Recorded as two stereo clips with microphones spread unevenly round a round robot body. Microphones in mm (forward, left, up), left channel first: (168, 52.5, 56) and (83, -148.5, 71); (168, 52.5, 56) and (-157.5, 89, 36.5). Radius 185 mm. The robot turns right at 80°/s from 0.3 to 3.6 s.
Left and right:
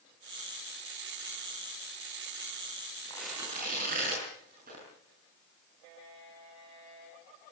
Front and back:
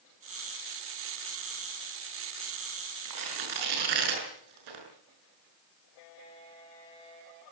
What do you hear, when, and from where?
3.0 s tearing paper: 140° left, 6.5 m; by 4.8 s 175° right, 6.5 m